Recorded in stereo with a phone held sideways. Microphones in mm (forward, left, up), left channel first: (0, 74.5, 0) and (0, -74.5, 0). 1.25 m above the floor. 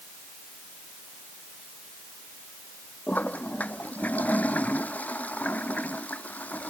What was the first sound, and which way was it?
A toilet flushing, 10° left (ahead or behind).